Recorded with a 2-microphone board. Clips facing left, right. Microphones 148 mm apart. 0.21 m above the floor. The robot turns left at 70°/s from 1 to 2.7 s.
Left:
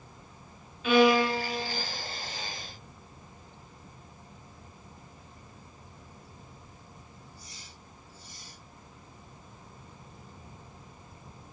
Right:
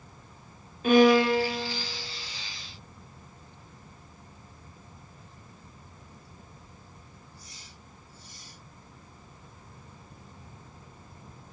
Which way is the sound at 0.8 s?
45° right.